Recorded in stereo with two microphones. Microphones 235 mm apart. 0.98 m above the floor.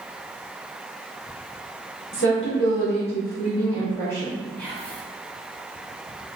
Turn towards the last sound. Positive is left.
turn(degrees=5)  # may be behind; listen again after turning